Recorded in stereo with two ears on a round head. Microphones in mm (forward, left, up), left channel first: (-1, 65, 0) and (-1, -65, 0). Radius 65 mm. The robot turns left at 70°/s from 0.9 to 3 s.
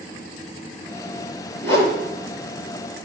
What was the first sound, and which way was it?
A whoosh, 15° left (ahead or behind).